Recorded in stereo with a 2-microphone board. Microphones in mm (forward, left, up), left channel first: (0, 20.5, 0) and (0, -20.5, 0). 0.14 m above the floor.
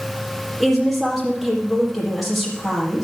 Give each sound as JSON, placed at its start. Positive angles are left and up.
{"t": 0.6, "sound": "a woman speaking", "side_deg": 0, "distance_m": 4.5}